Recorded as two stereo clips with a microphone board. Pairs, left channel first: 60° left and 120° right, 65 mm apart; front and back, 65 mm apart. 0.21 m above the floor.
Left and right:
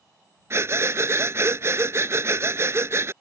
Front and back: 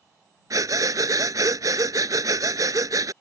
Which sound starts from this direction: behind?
Breathing, at 0.5 s.